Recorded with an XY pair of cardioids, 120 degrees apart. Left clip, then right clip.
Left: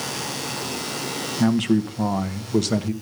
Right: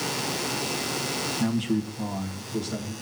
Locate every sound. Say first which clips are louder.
1.4 s a man speaking: left 6 dB; 40° left, 1.7 m; by 2.9 s 75° left, 2 m